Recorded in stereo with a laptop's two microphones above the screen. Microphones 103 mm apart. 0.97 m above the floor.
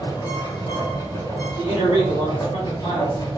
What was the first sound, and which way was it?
A machine running, 35° left (ahead or behind).